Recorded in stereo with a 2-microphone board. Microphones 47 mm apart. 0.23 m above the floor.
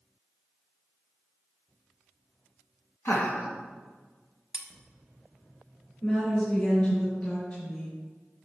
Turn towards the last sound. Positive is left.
turn(degrees=40)  # may be behind; listen again after turning